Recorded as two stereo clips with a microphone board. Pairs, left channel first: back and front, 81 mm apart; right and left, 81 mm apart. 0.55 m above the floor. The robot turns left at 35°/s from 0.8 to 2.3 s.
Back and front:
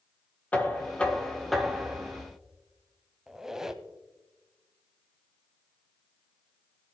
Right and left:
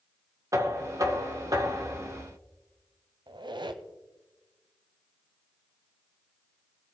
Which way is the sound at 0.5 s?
115° left.